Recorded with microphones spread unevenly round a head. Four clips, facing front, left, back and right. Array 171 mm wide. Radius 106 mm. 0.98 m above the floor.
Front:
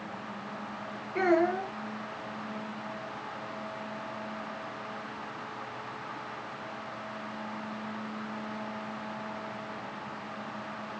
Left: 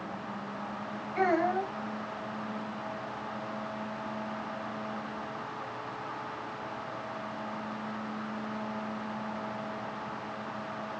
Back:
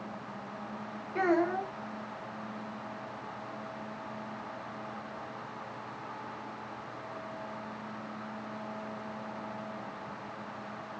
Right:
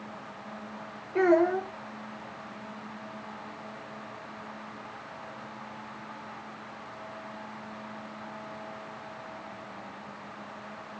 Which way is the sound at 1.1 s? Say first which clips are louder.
Right 5 dB, front 2 dB; 95° right.